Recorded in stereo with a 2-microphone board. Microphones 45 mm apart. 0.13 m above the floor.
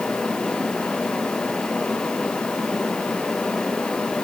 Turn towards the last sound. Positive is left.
No sound to turn to.